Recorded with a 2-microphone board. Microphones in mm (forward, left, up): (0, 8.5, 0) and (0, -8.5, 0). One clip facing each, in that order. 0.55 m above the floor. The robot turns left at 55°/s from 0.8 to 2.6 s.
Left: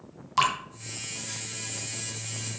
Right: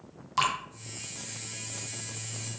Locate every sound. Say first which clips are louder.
0.4 s dripping: left 3 dB; 15° left (ahead or behind), 1.9 m